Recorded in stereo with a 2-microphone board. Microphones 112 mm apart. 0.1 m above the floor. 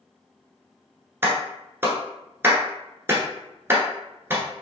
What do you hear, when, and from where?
1.2 s a clap: 20° right (ahead or behind), 1.0 m